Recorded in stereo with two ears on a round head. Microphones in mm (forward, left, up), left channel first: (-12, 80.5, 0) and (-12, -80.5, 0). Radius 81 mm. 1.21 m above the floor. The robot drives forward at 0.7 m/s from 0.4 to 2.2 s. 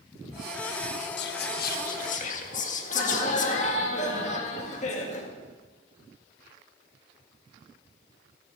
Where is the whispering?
70° left (ahead or behind), 1.2 m; by 3.8 s 45° left (ahead or behind), 1.7 m.